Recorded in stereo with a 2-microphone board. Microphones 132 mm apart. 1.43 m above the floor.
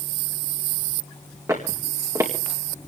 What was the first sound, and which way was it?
Footsteps, 25° right (ahead or behind).